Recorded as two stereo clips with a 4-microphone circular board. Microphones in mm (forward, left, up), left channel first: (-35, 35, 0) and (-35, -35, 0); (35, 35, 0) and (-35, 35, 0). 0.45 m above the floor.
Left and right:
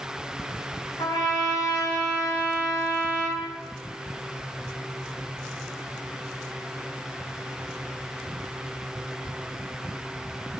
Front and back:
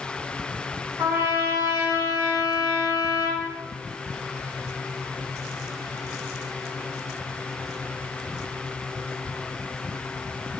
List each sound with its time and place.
1.0 s a trumpet: 115° left, 5 m